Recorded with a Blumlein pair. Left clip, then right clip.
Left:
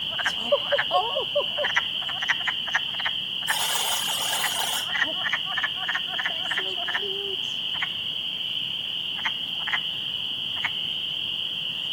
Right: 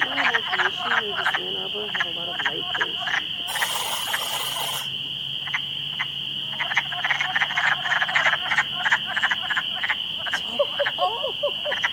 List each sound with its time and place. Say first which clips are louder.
3.5 s a buzzer: left 3 dB; 60° left, 8 m